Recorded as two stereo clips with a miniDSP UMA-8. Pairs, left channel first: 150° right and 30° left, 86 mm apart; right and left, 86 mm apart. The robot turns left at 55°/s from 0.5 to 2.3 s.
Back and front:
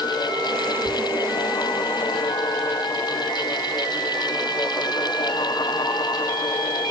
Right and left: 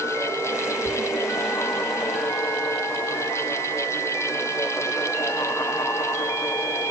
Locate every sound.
0.8 s whispering: 45° right, 2.5 m; by 1.0 s 55° right, 2.5 m